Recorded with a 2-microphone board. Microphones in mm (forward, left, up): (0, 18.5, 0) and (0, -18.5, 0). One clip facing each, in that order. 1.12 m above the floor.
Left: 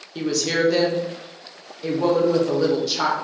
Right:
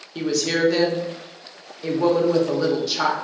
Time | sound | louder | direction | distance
0.1 | a woman speaking | even | centre (ahead or behind) | 0.6 m